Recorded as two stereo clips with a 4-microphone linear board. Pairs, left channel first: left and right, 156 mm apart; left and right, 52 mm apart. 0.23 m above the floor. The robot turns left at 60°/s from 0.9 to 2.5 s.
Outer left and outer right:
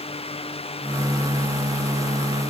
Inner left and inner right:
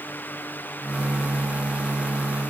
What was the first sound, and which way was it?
Only background noise.